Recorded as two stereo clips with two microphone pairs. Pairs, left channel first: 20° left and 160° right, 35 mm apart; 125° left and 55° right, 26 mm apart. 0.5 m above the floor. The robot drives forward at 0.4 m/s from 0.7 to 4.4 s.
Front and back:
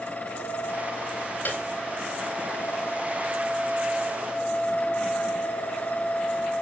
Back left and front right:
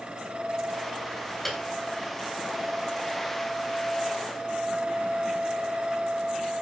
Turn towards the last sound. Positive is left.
turn(degrees=65)